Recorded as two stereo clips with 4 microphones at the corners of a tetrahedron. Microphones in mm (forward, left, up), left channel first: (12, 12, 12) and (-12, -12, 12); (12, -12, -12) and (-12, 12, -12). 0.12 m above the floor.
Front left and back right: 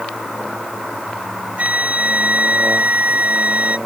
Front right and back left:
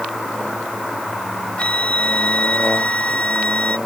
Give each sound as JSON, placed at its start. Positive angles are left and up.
{"t": 1.6, "sound": "a flute", "azimuth_deg": -95}